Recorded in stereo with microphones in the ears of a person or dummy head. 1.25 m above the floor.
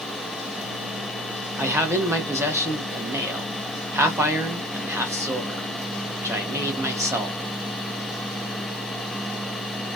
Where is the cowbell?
I don't hear a cowbell.